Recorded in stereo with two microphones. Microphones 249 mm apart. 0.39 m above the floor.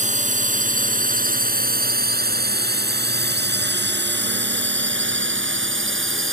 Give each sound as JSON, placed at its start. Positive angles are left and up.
{"t": 0.0, "sound": "a drone", "side_deg": -30}